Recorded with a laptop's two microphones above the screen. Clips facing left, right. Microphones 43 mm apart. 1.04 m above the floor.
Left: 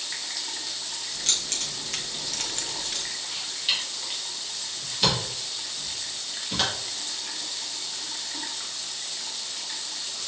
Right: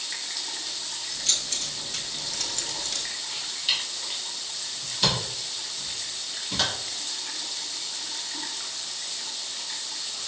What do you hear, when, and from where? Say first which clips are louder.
1.1 s keys jangling: even; 55° left (ahead or behind), 1.2 m; by 3.1 s 10° left (ahead or behind), 1.1 m
3.7 s a camera shutter: even; 10° left (ahead or behind), 1.3 m